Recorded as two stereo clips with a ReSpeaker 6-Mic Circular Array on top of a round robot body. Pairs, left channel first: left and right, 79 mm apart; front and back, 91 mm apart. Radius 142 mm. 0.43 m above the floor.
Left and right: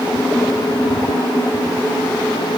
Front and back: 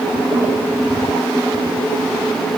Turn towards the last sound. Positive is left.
No sound to turn to.